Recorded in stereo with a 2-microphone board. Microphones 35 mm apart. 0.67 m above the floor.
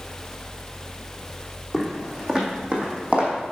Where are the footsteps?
20° right (ahead or behind), 1.9 m; by 3.3 s 45° right (ahead or behind), 1.9 m.